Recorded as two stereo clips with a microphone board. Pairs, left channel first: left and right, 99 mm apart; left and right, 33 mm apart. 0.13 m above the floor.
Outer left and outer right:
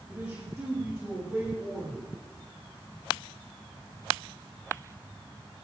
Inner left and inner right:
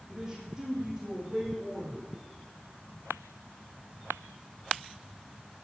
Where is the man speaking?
15° right (ahead or behind), 8.5 m; by 2.1 s 10° right (ahead or behind), 10.5 m.